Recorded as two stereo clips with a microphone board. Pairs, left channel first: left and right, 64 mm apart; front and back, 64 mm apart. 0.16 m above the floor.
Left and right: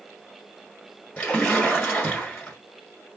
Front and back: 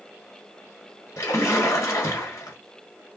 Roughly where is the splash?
Ahead.